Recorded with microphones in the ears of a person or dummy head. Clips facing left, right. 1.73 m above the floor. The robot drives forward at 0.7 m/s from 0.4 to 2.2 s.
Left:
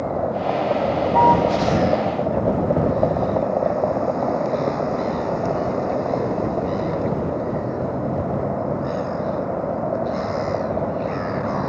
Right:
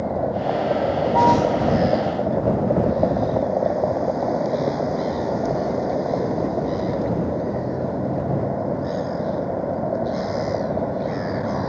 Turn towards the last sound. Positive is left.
turn(degrees=0)  # may be behind; listen again after turning